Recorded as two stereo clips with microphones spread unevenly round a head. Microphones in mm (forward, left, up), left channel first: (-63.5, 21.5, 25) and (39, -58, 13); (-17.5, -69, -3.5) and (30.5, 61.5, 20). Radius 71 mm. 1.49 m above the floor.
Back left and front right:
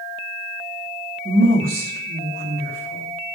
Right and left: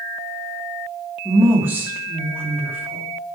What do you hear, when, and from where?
1.2 s a woman speaking: 5° right, 2.5 m